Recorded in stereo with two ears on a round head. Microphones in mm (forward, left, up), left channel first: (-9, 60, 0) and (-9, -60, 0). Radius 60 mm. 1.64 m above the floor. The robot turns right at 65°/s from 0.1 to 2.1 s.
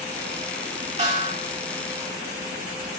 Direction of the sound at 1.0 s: 50° right (ahead or behind).